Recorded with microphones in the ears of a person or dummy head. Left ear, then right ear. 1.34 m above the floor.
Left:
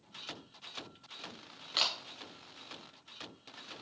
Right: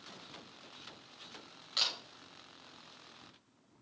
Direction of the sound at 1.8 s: 5° left (ahead or behind).